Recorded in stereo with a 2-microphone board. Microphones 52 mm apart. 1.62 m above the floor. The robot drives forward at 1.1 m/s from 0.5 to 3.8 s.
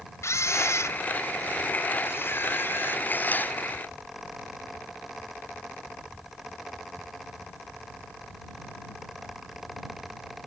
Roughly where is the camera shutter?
Left.